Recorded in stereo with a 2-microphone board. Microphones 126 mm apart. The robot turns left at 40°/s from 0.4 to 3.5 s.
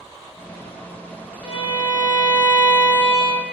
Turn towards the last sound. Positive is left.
turn(degrees=-75)